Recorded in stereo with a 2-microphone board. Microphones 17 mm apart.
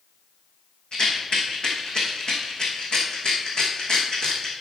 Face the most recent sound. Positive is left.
turn(degrees=55)  # may be behind; listen again after turning